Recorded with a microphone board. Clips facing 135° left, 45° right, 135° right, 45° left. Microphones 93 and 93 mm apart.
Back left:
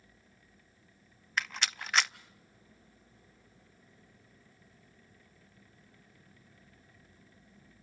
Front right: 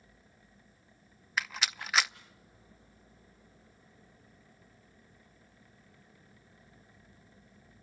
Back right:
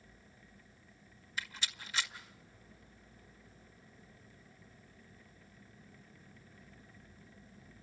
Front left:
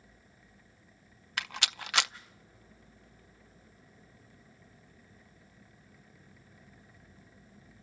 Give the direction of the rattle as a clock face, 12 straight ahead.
11 o'clock.